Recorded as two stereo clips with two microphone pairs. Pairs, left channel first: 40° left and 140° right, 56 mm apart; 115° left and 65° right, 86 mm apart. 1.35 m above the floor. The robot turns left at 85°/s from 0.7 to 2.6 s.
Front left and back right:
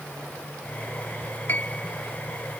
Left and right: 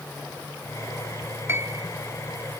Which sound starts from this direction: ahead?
A piano, at 1.5 s.